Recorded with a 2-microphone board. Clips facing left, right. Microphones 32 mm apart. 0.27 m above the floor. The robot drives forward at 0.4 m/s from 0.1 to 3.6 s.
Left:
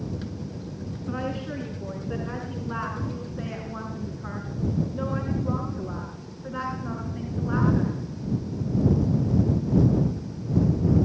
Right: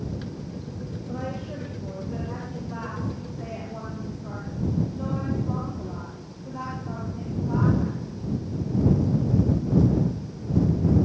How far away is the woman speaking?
About 3.5 m.